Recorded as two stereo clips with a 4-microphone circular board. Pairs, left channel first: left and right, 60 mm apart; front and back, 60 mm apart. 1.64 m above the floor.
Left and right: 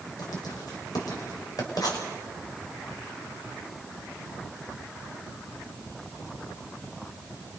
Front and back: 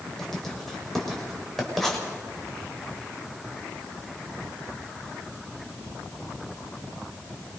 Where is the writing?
85° left, 6 m.